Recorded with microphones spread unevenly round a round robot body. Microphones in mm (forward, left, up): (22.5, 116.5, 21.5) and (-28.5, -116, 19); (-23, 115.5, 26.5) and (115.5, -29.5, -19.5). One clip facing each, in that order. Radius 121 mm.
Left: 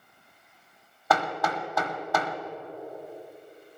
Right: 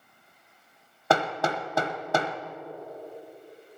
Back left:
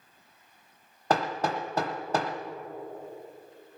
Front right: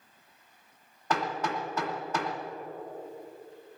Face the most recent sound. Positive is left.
turn(degrees=-165)